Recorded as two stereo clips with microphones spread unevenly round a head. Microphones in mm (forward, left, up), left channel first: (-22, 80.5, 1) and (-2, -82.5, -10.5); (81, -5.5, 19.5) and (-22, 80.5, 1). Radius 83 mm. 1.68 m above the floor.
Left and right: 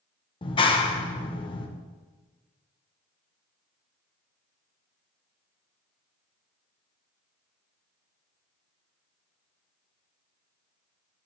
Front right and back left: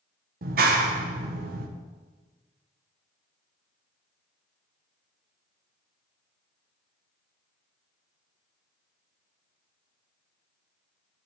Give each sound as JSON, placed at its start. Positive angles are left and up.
{"t": 0.4, "sound": "a clap", "azimuth_deg": 150, "distance_m": 1.0}